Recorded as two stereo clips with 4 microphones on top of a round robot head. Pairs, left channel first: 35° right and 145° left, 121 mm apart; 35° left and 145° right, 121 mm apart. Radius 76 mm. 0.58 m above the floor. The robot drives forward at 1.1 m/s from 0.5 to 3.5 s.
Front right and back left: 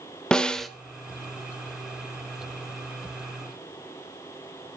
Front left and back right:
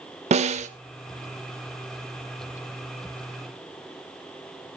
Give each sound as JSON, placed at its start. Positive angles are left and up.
{"t": 0.3, "sound": "a snare drum", "azimuth_deg": -120, "distance_m": 1.6}